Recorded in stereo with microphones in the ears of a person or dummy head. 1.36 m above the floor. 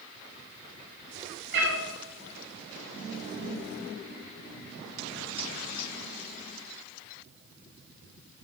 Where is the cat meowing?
65° right (ahead or behind), 1.0 m.